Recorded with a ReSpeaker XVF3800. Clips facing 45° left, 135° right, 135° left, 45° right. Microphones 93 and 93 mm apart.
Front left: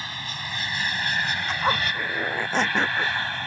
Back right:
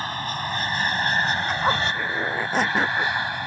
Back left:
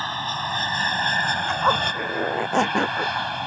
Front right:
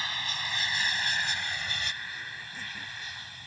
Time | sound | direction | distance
0.0 | an aircraft | straight behind | ?
1.5 | a zipper | 140° left | ?